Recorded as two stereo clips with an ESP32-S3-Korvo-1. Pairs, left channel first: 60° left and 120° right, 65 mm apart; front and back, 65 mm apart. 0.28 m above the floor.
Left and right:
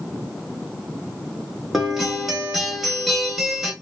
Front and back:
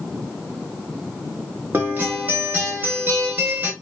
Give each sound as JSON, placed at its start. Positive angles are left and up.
{"t": 1.7, "sound": "a guitar", "azimuth_deg": 155, "distance_m": 0.9}